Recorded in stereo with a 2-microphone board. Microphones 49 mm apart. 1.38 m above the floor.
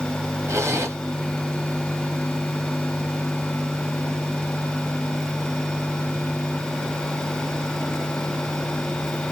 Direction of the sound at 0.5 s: 70° right (ahead or behind).